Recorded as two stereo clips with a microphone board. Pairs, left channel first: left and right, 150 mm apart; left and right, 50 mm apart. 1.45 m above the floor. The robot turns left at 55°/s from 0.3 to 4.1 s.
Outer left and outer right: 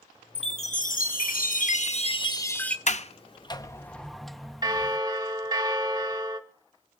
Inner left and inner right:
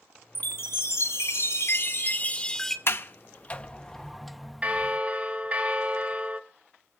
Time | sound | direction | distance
0.3 | a chime | 140° left | 0.9 m
2.9 | a sliding door | 55° left (ahead or behind) | 0.7 m
4.6 | a bell | 25° right (ahead or behind) | 1.0 m